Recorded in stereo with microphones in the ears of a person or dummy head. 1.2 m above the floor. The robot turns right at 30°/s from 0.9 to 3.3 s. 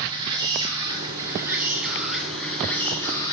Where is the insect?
35° right, 1.2 m; by 3.3 s 35° left, 1.2 m.